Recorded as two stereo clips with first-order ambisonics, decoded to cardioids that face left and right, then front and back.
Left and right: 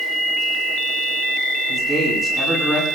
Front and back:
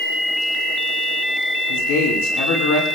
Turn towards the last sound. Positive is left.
turn(degrees=-5)